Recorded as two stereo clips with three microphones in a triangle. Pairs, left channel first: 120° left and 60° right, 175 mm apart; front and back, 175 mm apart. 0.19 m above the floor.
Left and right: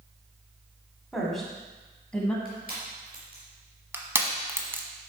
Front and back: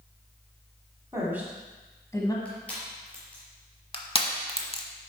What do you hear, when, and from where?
1.1 s a woman speaking: 150° right, 1.5 m; by 2.4 s 40° left, 1.6 m
2.5 s crushing: 85° right, 3.5 m
3.9 s crushing: 5° left, 1.0 m